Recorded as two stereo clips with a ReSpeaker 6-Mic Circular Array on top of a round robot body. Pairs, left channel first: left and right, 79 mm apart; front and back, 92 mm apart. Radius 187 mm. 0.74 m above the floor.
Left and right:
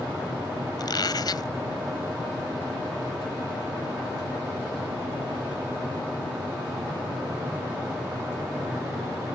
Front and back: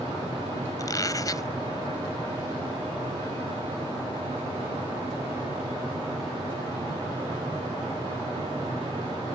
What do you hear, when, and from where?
0.8 s a squeak: 50° left